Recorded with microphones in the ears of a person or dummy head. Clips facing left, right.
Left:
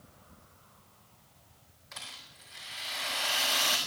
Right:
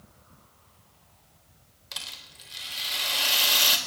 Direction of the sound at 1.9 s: 45° right (ahead or behind).